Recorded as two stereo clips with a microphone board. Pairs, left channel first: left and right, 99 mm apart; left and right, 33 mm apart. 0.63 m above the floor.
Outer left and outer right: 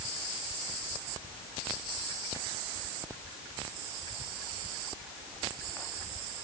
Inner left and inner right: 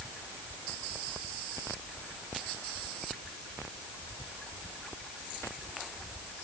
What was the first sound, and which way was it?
Only background noise.